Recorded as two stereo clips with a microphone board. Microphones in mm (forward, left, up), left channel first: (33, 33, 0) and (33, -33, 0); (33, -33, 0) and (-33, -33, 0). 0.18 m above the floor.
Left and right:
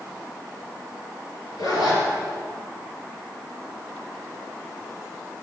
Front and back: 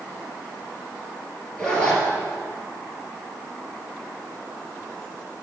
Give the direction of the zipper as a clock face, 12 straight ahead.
9 o'clock.